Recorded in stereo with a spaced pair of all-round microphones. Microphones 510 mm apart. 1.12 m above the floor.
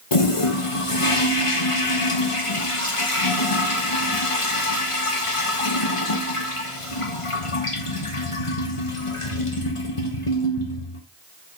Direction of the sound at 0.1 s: 80° left.